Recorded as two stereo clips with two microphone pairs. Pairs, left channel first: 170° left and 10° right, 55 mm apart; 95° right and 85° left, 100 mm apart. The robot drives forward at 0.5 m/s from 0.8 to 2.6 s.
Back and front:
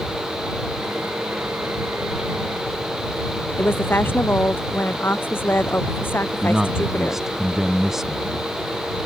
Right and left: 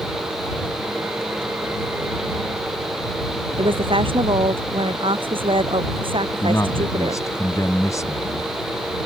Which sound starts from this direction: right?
A man speaking, at 6.4 s.